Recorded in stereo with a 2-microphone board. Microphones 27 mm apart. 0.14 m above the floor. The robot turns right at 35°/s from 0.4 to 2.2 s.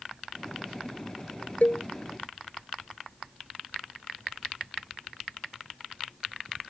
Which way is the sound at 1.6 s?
65° left (ahead or behind).